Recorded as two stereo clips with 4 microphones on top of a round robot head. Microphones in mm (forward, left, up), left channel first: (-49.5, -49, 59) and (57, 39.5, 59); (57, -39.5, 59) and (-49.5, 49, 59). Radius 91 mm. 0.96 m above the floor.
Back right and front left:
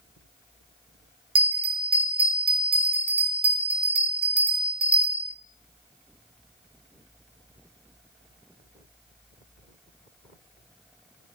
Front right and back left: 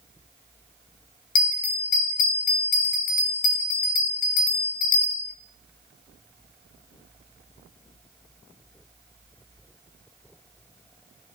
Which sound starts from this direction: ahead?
A bell, at 1.4 s.